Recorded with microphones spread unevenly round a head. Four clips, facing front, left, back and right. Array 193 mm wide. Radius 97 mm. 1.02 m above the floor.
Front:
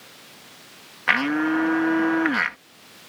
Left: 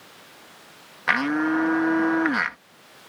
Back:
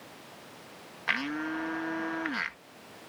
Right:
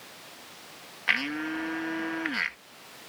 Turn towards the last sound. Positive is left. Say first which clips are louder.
# left 9 dB, front 11 dB
turn(degrees=45)